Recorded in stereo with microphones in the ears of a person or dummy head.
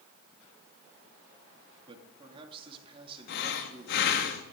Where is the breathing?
55° left (ahead or behind), 1.2 m.